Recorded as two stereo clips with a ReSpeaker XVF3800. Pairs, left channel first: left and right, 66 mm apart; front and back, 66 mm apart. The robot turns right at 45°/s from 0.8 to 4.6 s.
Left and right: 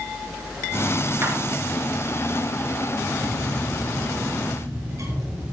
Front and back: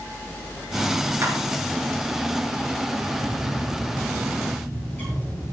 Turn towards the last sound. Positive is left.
turn(degrees=-60)